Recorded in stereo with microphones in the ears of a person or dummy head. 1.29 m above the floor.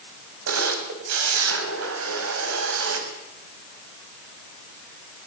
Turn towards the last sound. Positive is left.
turn(degrees=-85)